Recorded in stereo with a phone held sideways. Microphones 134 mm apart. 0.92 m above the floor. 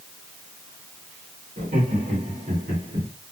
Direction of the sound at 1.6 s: 65° right (ahead or behind).